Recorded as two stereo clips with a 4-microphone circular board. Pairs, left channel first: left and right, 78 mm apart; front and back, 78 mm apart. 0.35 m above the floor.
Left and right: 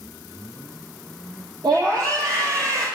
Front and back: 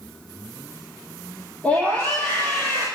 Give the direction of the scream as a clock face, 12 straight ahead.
2 o'clock.